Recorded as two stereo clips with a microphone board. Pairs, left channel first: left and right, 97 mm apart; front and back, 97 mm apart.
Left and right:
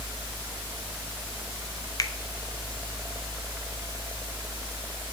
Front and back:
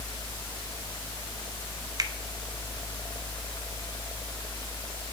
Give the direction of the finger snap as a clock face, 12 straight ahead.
8 o'clock.